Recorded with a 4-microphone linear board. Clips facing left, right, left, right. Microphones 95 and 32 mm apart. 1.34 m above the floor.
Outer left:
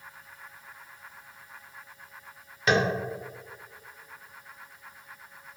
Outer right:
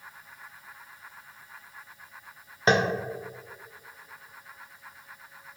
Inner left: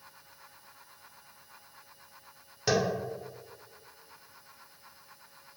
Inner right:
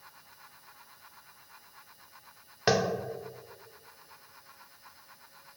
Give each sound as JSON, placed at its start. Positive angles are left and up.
{"t": 2.7, "sound": "tapping", "side_deg": -35, "distance_m": 0.6}